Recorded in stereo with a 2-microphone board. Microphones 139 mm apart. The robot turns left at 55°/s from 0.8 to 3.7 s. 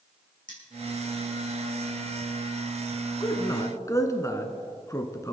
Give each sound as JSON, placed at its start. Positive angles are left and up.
{"t": 0.5, "sound": "cutlery clinking", "side_deg": 80, "distance_m": 4.5}
{"t": 3.2, "sound": "a man speaking", "side_deg": 25, "distance_m": 1.4}